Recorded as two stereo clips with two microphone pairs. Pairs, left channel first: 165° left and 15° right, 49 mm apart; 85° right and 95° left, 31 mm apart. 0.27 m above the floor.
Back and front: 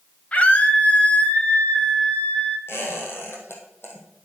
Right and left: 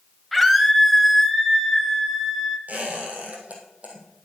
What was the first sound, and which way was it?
A scream, 175° right.